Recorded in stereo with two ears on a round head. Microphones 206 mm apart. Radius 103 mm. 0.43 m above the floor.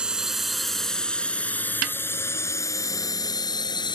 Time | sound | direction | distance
0.0 | a drone | 5° right (ahead or behind) | ?
1.8 | a snare drum | 65° right (ahead or behind) | ?